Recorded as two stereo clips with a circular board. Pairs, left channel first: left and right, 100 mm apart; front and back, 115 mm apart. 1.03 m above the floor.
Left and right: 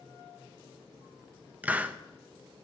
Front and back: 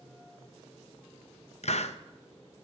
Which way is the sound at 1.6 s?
15° right.